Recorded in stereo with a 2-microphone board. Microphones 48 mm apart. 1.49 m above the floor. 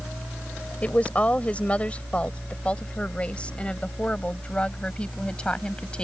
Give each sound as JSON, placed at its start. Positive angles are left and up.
{"t": 0.8, "sound": "a woman speaking", "side_deg": 30}